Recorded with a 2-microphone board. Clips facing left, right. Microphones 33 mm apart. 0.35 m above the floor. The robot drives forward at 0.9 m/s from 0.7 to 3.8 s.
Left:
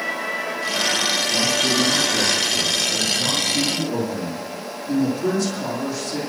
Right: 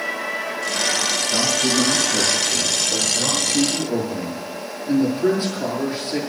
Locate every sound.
1.3 s a man speaking: 40° right (ahead or behind), 5 m; by 6.2 s 30° right (ahead or behind), 7 m